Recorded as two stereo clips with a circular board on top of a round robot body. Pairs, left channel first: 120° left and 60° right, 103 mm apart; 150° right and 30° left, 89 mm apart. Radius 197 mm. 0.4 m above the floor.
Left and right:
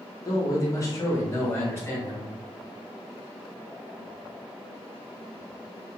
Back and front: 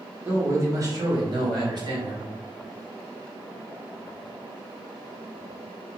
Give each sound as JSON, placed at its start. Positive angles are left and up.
{"t": 0.2, "sound": "a man speaking", "azimuth_deg": 85, "distance_m": 1.1}